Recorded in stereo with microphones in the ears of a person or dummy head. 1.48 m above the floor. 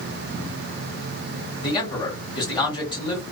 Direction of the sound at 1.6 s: 20° left (ahead or behind).